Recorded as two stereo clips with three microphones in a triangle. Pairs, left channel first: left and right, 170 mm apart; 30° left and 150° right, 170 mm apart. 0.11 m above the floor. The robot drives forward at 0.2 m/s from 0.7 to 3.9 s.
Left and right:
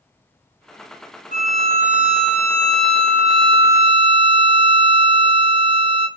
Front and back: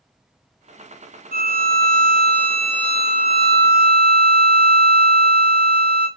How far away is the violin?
About 0.8 m.